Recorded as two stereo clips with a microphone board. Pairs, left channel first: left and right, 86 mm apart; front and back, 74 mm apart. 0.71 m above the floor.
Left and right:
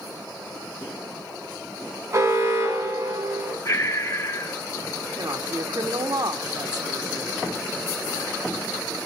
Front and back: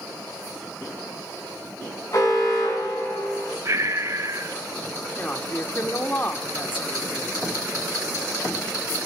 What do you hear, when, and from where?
2.1 s an alarm: 35° right, 8 m
3.6 s breathing: 140° left, 1.7 m
5.2 s a woman speaking: 60° right, 1.9 m